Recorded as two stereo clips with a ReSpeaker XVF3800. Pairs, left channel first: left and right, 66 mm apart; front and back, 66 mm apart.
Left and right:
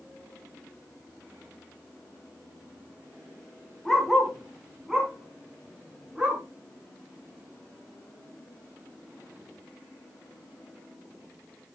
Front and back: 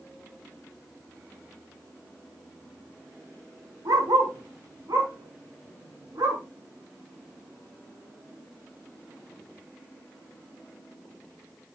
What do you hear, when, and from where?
3.9 s a dog barking: 175° left, 4 m; by 6.4 s 165° right, 5.5 m